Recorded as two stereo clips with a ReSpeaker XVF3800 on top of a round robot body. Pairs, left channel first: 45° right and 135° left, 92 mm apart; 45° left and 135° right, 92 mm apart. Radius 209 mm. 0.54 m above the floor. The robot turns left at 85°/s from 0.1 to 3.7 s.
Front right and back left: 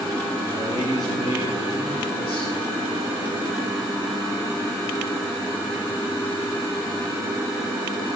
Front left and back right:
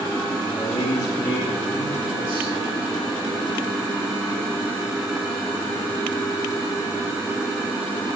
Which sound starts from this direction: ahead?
A man speaking, at 0.5 s.